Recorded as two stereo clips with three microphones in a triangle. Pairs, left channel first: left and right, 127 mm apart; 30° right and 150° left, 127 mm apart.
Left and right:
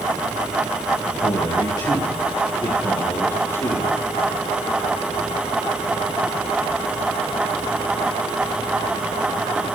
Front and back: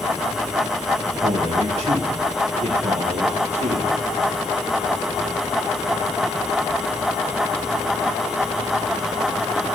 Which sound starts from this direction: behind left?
A man speaking, at 1.2 s.